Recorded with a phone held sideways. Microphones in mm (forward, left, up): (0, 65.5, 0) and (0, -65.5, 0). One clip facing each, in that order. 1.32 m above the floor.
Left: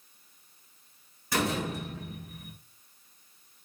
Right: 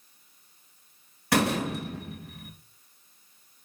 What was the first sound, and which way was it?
A door slam, 75° right (ahead or behind).